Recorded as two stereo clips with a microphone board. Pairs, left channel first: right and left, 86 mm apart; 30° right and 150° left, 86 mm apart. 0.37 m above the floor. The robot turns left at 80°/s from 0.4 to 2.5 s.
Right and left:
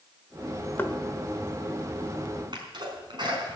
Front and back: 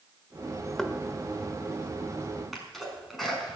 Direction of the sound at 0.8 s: 105° right.